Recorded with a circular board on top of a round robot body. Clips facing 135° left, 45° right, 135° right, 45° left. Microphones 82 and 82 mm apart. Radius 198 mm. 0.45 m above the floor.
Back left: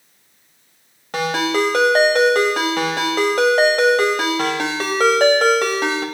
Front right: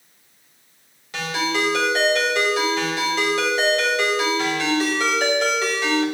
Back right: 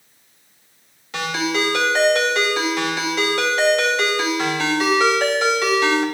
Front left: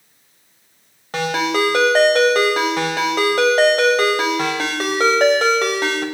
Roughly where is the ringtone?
Left.